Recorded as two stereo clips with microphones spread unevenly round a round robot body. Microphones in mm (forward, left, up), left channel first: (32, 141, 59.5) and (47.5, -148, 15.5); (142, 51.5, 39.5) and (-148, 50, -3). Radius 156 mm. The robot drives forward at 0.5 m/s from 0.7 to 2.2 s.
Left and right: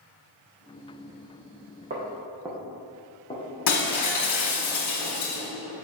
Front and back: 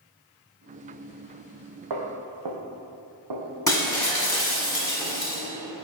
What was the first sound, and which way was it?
Footsteps, 155° right.